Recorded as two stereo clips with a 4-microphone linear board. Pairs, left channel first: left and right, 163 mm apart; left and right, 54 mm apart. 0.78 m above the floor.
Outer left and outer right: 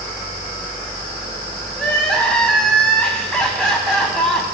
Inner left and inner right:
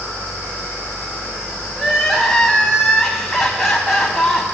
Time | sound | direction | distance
1.8 | crying | 5° left (ahead or behind) | 1.6 m